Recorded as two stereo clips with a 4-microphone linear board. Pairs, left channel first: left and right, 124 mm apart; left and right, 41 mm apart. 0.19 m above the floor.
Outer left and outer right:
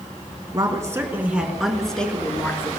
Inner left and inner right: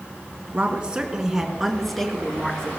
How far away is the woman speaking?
About 2 m.